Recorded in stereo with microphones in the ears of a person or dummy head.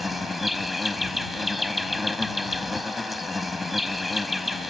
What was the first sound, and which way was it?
An insect, centre (ahead or behind).